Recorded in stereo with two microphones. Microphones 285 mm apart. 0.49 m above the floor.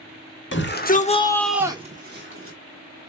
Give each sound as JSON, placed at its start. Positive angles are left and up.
{"t": 0.5, "sound": "a shout", "side_deg": 40, "distance_m": 1.1}